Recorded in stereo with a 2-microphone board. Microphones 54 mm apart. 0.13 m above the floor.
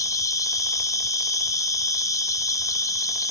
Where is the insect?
80° left, 1.1 m.